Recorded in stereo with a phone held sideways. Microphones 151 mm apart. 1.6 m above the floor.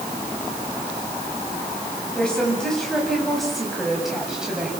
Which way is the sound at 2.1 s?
5° left (ahead or behind).